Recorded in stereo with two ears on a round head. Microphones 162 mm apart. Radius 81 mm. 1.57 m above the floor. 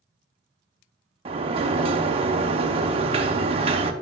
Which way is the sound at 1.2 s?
30° right (ahead or behind).